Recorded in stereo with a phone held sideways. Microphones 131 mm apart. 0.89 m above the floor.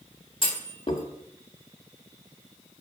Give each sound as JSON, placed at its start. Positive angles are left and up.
{"t": 0.4, "sound": "a clunk", "side_deg": 45, "distance_m": 1.1}